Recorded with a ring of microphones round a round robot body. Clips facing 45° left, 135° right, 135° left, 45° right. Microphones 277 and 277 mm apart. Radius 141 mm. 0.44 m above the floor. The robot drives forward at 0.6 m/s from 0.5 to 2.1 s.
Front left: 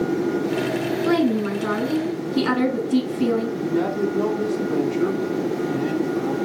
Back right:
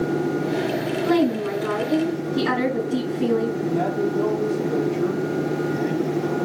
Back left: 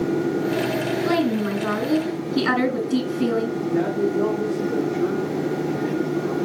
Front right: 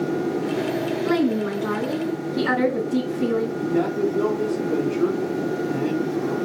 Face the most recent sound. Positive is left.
turn(degrees=10)